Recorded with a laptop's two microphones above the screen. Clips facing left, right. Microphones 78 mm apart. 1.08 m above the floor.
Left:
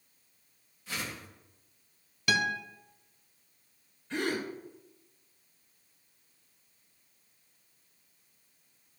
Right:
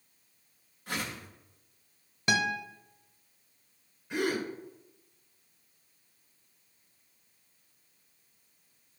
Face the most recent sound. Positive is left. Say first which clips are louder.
# right 2 dB
turn(degrees=-15)  # may be behind; listen again after turning